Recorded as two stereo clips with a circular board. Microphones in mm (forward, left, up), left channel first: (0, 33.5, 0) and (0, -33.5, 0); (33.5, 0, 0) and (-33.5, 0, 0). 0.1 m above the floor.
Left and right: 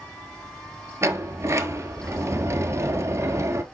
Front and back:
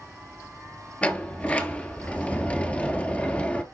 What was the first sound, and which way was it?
A sliding door, 65° right.